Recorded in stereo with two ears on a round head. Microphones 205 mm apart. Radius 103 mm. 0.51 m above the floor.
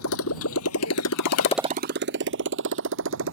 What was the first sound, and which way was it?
A motorcycle, 70° left (ahead or behind).